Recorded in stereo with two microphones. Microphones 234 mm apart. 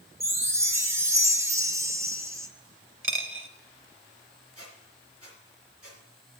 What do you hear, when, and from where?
0.2 s a chime: 10° right (ahead or behind), 0.6 m
3.0 s a dropped coin: 55° right (ahead or behind), 0.6 m
4.5 s a squeak: 80° right, 3 m